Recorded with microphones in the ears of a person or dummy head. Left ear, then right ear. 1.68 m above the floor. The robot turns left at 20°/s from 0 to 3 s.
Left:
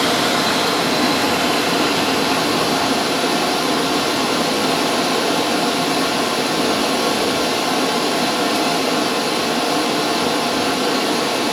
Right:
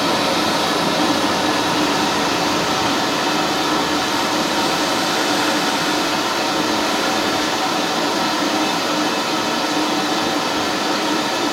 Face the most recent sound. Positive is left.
turn(degrees=10)